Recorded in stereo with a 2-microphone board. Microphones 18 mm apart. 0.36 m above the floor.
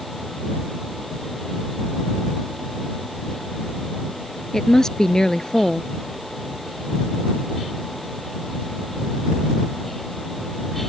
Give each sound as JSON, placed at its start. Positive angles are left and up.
{"t": 4.5, "sound": "a woman speaking", "side_deg": 30}